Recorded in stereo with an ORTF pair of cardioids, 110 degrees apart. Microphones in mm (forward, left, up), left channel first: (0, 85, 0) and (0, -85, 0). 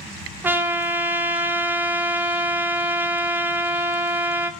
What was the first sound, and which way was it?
A trumpet, 10° right.